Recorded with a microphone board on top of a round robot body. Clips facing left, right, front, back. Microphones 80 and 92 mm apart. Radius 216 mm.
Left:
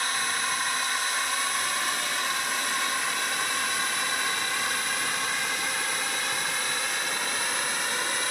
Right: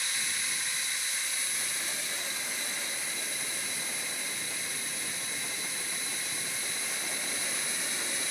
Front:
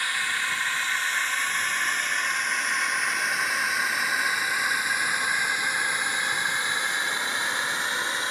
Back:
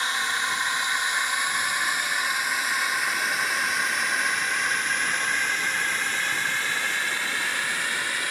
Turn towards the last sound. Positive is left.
turn(degrees=65)